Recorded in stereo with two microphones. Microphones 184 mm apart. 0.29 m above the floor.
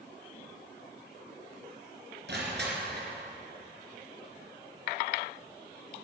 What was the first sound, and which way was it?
Crushing, 70° right (ahead or behind).